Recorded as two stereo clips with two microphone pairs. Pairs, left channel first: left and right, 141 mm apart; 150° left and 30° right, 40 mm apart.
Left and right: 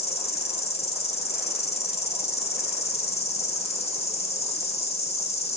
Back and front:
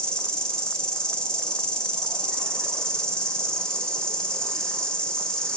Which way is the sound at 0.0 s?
85° left.